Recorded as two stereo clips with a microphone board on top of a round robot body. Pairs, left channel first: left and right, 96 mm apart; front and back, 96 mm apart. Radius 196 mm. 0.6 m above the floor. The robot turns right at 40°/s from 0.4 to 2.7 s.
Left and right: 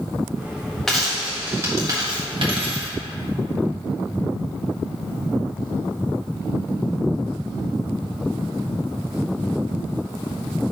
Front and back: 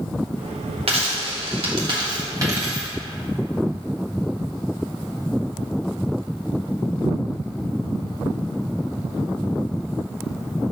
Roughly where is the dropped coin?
Behind.